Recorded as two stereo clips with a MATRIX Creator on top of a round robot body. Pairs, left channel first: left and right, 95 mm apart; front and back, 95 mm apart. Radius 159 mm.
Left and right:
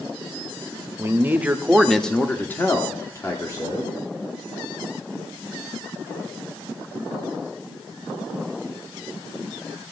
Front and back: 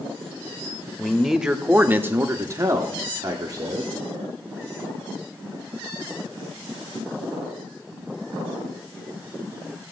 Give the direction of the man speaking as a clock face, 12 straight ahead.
3 o'clock.